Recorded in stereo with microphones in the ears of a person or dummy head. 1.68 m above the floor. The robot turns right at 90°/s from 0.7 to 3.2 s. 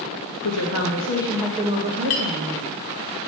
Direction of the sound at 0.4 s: 120° left.